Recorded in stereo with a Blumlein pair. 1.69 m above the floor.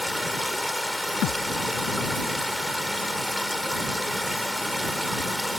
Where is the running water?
Straight ahead.